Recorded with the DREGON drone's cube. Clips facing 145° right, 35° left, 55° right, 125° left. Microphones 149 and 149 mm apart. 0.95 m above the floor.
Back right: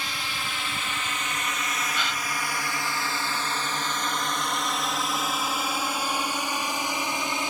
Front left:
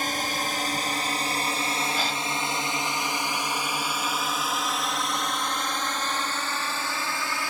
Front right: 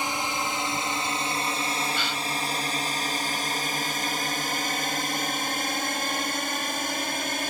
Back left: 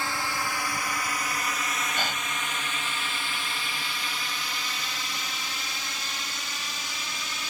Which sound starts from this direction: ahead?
A drone, at 0.0 s.